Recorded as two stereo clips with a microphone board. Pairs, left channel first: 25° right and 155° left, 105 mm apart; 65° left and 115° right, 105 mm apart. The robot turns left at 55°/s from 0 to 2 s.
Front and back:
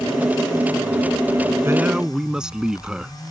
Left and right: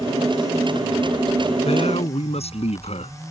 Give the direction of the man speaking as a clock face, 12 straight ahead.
9 o'clock.